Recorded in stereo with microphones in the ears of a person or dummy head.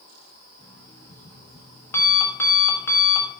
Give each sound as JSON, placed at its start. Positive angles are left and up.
{"t": 0.6, "sound": "an alarm clock", "side_deg": 20, "distance_m": 1.3}